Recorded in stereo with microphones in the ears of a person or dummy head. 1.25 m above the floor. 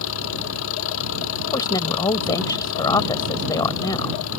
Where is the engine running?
70° left (ahead or behind).